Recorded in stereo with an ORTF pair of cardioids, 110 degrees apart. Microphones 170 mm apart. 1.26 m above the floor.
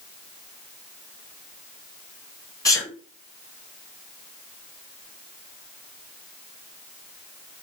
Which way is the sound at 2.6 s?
20° left.